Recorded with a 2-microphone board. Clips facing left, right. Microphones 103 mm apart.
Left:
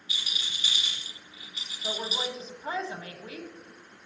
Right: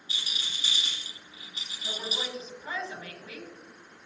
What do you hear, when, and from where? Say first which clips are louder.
0.1 s a rattle: even; 35° right (ahead or behind), 5.5 m
1.8 s a woman speaking: left 3 dB; 35° left (ahead or behind), 1.5 m